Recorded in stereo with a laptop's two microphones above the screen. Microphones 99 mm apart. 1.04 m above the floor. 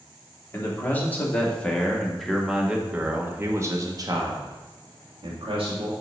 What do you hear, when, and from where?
0.5 s a man speaking: 25° left (ahead or behind), 2 m; by 5.9 s 75° right (ahead or behind), 1.8 m